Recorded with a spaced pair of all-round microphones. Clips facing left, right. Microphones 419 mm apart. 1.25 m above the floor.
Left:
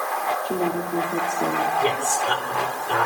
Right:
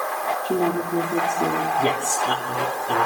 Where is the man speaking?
55° right (ahead or behind), 3.5 m.